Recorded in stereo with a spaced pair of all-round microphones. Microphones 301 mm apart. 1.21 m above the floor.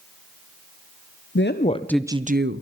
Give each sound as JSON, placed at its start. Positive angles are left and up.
{"t": 1.4, "sound": "a woman speaking", "side_deg": 40, "distance_m": 0.7}